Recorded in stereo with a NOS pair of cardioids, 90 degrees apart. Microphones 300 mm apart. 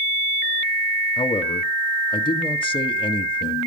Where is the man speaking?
15° left, 1.6 m.